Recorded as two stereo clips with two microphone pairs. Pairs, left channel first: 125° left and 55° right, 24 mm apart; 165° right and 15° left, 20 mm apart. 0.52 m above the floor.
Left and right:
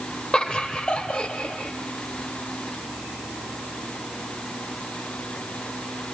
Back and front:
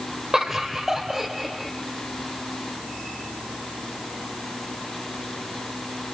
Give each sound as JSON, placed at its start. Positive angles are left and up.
{"t": 0.3, "sound": "laughter", "azimuth_deg": 75, "distance_m": 1.7}